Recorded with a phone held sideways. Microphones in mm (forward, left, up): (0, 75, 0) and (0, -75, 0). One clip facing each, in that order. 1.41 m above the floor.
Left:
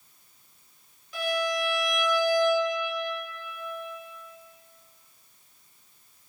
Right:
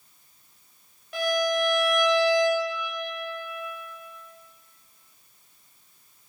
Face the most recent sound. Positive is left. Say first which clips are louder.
# right 4 dB
turn(degrees=-60)  # may be behind; listen again after turning